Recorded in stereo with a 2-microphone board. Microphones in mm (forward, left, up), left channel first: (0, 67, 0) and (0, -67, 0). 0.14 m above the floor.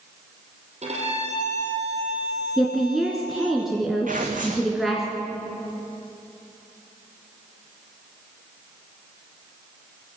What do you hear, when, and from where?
0.8 s a violin: 60° right (ahead or behind), 4 m
2.6 s a woman speaking: centre (ahead or behind), 2 m
4.1 s tearing paper: 80° right, 3 m